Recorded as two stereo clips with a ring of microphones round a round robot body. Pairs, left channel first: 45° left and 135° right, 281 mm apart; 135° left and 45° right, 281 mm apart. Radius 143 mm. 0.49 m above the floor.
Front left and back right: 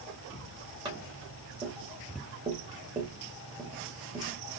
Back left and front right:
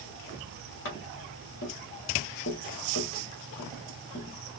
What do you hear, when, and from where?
0.8 s tapping: 155° left, 1.5 m